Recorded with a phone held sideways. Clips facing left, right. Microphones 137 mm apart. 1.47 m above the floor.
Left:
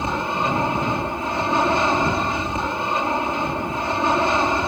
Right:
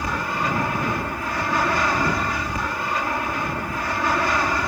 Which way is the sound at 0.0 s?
25° left (ahead or behind).